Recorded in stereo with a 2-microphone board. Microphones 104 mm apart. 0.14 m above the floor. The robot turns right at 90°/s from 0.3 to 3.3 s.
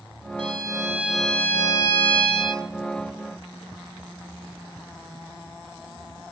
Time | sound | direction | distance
0.4 | a violin | 75° right | 1.4 m